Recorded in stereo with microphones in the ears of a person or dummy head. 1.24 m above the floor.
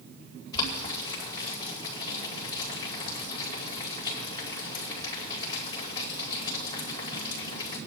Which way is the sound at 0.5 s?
25° left (ahead or behind).